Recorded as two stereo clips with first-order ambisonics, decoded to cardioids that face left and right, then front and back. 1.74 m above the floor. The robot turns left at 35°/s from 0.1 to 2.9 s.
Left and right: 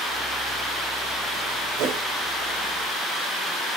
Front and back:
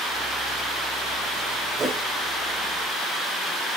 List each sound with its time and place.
1.8 s a whoosh: 105° right, 3 m; by 2.0 s 115° right, 3 m